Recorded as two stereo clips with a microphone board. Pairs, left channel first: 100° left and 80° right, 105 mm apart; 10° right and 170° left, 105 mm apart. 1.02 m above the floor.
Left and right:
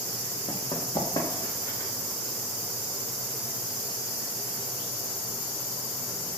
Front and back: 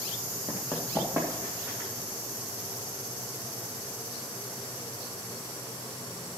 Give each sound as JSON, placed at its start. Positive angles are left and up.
{"t": 0.5, "sound": "running footsteps", "azimuth_deg": 100, "distance_m": 2.0}